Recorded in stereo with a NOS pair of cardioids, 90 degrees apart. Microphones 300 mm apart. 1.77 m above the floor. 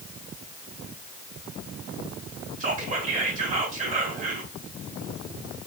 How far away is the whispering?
About 1.2 m.